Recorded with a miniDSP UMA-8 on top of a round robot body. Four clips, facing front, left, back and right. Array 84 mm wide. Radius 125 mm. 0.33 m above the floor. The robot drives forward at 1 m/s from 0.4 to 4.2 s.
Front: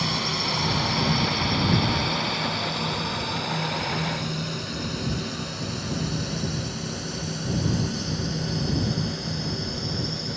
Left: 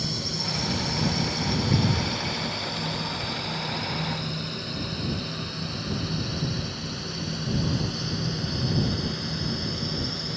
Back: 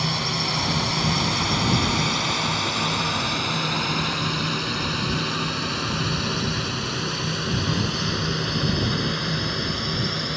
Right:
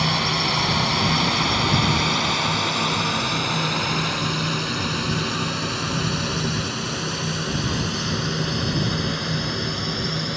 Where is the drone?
90° right; by 10.4 s 145° right.